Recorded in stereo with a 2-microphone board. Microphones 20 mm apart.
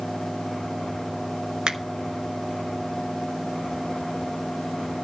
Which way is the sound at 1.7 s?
75° right (ahead or behind).